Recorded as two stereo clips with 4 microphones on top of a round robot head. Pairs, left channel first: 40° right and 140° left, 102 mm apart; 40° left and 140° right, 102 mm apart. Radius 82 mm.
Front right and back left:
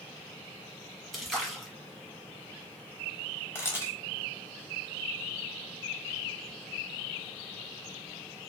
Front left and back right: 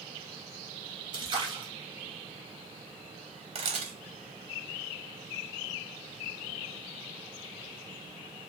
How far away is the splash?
About 0.9 m.